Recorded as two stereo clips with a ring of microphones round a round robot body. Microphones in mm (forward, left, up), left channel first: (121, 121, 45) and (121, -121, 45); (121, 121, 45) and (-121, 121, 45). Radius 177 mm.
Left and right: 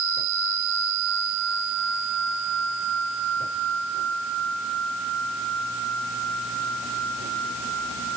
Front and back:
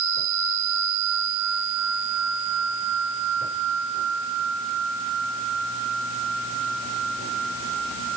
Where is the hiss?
I don't hear a hiss.